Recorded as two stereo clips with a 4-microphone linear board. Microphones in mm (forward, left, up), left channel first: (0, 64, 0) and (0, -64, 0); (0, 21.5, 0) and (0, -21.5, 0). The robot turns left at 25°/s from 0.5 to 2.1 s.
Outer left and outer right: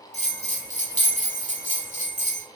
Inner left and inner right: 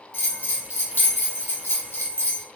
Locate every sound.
0.1 s a bell: 110° left, 1.1 m; by 2.4 s 70° left, 1.1 m